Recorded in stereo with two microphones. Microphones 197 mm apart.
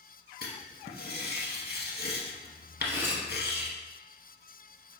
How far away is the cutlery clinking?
About 0.7 m.